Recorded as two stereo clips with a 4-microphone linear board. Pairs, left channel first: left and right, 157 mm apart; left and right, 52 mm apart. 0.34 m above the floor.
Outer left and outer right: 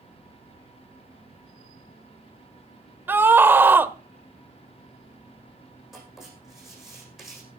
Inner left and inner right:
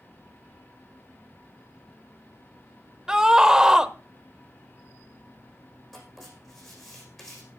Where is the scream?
15° right (ahead or behind), 0.9 m.